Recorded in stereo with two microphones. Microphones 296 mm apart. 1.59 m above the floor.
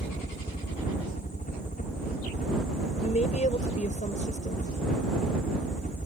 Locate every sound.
0.0 s a helicopter: 25° left (ahead or behind)
3.0 s a woman speaking: 25° left (ahead or behind)